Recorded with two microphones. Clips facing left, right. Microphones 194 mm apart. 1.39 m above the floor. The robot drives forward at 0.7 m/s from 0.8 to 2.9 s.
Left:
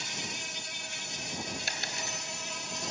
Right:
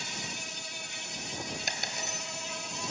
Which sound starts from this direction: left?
An insect, at 0.0 s.